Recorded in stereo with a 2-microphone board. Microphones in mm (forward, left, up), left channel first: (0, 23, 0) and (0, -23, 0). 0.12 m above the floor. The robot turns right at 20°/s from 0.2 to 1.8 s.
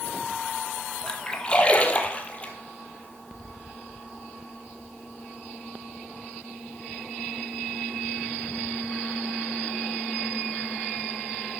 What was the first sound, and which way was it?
A splash, 15° left (ahead or behind).